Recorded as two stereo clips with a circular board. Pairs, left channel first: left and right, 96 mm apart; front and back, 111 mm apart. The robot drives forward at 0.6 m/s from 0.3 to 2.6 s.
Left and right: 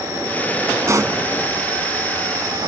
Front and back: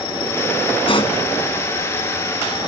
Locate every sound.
0.9 s a pop: 35° right